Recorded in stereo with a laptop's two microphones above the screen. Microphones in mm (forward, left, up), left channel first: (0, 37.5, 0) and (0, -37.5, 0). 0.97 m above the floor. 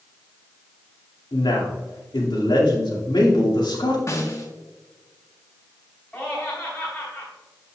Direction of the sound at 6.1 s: 20° left (ahead or behind).